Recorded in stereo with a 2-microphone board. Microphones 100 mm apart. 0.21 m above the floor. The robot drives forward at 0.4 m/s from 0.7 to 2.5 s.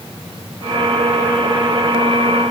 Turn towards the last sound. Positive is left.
No sound to turn to.